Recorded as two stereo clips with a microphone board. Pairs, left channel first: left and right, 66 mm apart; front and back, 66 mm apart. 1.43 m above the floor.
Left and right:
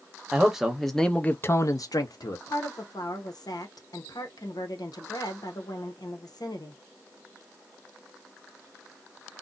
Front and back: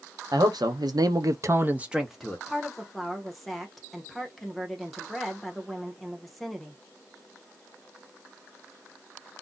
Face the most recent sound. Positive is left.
turn(degrees=90)